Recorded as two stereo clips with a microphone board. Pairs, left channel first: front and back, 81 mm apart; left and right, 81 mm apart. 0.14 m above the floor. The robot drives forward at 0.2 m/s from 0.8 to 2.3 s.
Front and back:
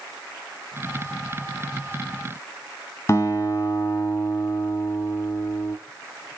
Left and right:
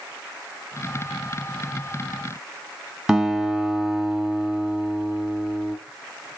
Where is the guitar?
10° right, 0.8 m.